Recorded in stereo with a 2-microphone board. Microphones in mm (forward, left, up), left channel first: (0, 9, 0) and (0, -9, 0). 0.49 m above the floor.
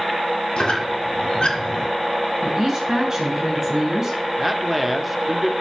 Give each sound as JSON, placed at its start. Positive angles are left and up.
{"t": 0.6, "sound": "a squeak", "side_deg": 50, "distance_m": 2.0}
{"t": 2.4, "sound": "a woman speaking", "side_deg": -25, "distance_m": 3.0}
{"t": 4.4, "sound": "a man speaking", "side_deg": -10, "distance_m": 0.9}